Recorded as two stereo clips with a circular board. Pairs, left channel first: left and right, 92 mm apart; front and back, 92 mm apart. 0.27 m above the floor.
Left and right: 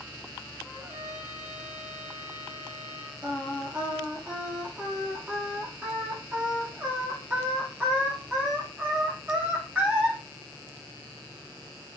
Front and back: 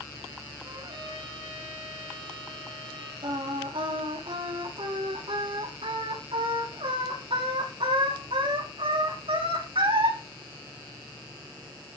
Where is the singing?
170° right, 9.5 m.